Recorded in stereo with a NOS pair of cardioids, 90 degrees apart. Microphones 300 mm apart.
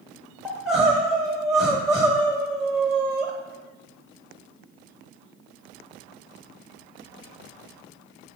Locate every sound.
0.5 s crying: straight ahead, 1.0 m